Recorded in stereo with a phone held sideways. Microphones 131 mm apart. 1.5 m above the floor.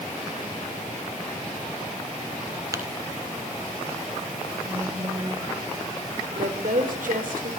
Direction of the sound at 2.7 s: 25° right (ahead or behind).